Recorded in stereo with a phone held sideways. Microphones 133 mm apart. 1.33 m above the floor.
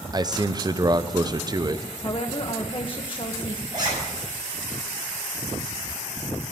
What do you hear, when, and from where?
0.1 s a man speaking: 30° right (ahead or behind), 0.6 m
2.0 s a woman speaking: 40° left (ahead or behind), 0.9 m
3.7 s a zipper: 30° right (ahead or behind), 9 m